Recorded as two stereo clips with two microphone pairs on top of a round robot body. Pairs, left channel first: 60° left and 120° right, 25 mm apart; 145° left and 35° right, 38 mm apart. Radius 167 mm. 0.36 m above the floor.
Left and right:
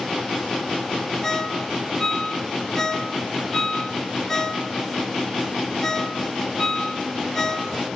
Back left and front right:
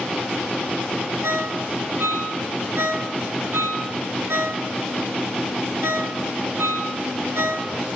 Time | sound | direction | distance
1.2 | a ringtone | 15° right | 3.5 m